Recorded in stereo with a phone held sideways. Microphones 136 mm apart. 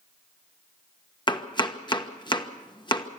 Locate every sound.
1.3 s chopping: 35° left (ahead or behind), 1.2 m